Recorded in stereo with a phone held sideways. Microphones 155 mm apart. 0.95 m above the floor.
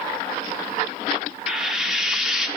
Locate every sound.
1.5 s frying: centre (ahead or behind), 1.2 m